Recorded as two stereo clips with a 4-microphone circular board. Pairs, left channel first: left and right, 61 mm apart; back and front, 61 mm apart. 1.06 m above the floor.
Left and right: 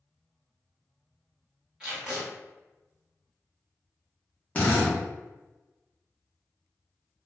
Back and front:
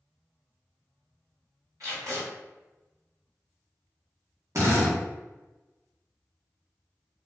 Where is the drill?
25° left, 0.8 m.